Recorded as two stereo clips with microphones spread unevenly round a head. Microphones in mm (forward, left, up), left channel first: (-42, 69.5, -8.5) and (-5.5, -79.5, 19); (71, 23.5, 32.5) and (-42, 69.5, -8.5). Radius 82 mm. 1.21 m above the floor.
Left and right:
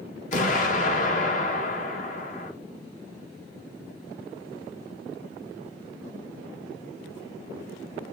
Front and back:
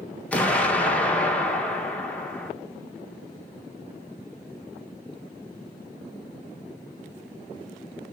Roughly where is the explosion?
Ahead left.